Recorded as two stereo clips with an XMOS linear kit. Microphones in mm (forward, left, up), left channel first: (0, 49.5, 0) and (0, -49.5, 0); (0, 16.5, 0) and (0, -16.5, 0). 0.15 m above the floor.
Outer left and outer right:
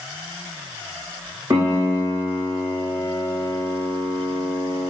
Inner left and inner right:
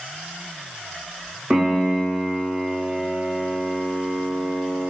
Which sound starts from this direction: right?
A piano, at 1.5 s.